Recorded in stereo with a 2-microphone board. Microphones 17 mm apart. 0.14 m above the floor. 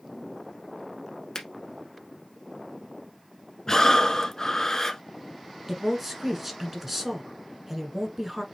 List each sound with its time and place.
1.4 s a finger snap: 35° left (ahead or behind), 1.2 m
3.7 s breathing: 30° left (ahead or behind), 0.6 m
5.7 s a woman speaking: 15° right (ahead or behind), 1.4 m